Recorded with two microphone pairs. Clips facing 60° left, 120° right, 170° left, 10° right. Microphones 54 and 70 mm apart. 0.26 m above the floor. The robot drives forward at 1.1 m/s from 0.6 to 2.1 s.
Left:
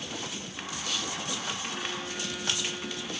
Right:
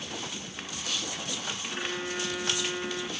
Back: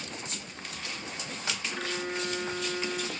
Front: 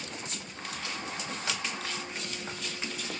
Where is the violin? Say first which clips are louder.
Right 2 dB, back 4 dB; straight behind, 1.4 m.